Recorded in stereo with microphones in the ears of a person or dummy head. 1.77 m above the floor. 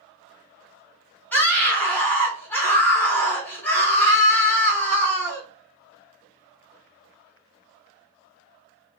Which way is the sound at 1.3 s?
5° left (ahead or behind).